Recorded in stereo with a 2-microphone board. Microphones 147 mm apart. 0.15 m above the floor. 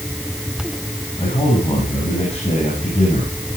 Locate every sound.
1.2 s a man speaking: 40° left (ahead or behind), 7.5 m